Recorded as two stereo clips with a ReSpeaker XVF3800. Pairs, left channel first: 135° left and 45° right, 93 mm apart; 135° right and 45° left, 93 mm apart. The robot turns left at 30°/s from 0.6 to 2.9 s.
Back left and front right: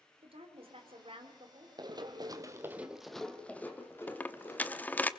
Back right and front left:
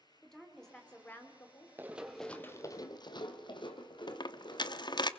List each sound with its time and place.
0.2 s a woman speaking: 50° right, 2.5 m; by 1.7 s 80° right, 2.5 m
1.8 s running footsteps: 20° right, 1.7 m; by 5.1 s 170° right, 3.5 m
4.1 s a dropped coin: 155° right, 0.7 m